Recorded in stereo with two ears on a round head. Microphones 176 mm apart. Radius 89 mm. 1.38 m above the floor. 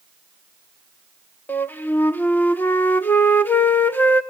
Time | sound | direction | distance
1.5 | a flute | 10° left (ahead or behind) | 1.0 m